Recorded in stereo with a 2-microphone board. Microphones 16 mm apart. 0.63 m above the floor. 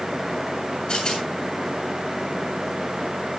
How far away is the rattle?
About 7 m.